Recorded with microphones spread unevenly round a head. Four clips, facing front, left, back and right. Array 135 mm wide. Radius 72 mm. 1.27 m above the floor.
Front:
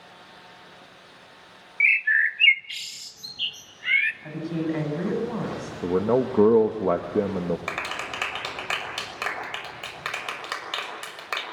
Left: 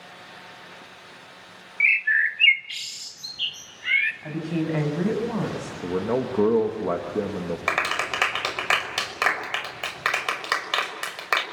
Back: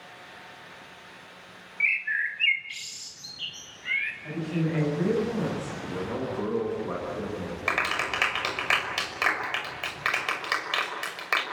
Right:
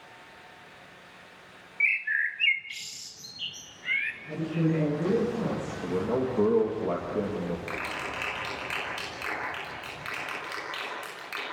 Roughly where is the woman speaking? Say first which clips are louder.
Right 3 dB, front 1 dB; left.